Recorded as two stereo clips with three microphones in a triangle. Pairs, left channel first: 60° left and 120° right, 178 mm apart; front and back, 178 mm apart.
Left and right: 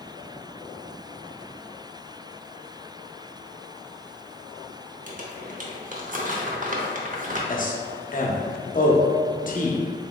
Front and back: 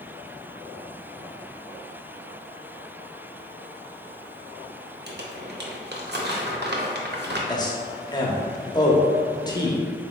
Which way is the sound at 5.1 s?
160° right.